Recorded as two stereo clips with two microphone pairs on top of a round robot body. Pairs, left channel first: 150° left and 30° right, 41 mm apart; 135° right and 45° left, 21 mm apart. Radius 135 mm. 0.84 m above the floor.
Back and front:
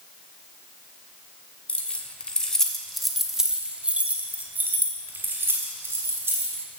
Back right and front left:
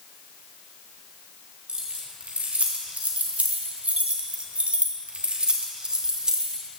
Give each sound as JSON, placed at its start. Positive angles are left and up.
{"t": 1.7, "sound": "keys jangling", "azimuth_deg": 90, "distance_m": 1.5}